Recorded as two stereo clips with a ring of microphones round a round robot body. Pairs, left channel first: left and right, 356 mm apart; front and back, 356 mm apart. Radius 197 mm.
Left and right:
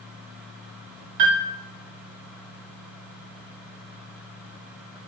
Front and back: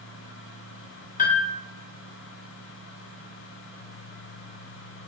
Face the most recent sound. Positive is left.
turn(degrees=-70)